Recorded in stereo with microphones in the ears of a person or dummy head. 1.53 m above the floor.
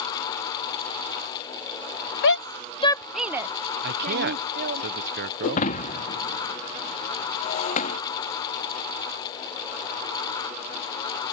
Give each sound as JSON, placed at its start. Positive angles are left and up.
{"t": 2.2, "sound": "a shout", "side_deg": 60}
{"t": 3.8, "sound": "a man speaking", "side_deg": -55}
{"t": 5.4, "sound": "breaking glass", "side_deg": 40}